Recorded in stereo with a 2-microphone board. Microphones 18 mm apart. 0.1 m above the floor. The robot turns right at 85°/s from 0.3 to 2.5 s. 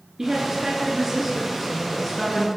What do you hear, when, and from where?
0.2 s a woman speaking: 30° right (ahead or behind), 1.2 m; by 2.5 s 25° left (ahead or behind), 1.2 m